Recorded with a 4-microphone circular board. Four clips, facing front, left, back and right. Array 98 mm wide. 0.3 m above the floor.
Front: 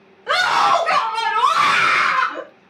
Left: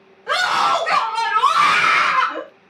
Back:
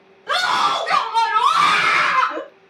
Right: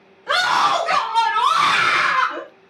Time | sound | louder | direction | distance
0.3 | a scream | even, front 3 dB | 10° left | 1.6 m